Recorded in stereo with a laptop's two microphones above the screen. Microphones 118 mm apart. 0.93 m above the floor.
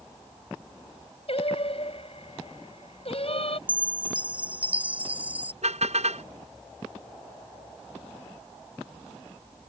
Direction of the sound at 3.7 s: 15° right (ahead or behind).